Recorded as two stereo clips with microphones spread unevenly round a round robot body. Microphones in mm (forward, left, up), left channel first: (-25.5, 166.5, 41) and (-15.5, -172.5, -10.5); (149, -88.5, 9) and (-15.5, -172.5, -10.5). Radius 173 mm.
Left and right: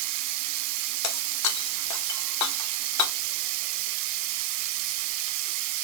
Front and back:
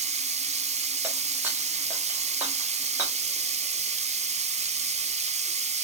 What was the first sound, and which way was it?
Running water, 95° right.